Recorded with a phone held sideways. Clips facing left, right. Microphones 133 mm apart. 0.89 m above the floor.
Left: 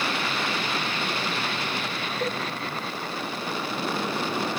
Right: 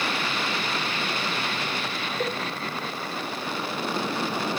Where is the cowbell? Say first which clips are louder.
Even; 65° right (ahead or behind), 1.7 m.